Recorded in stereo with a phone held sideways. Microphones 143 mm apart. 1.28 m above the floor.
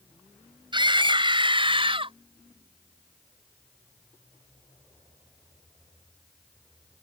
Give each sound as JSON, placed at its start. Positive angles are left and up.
{"t": 0.7, "sound": "a scream", "side_deg": -35}